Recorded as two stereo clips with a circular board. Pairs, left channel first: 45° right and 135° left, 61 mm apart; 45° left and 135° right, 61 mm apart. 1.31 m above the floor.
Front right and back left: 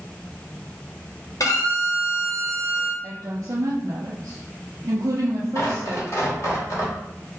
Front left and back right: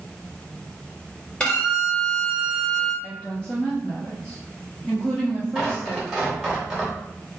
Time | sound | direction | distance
1.4 | a violin | 30° right | 0.7 m
3.0 | a woman speaking | 120° left | 0.5 m
5.5 | tearing paper | 60° right | 1.1 m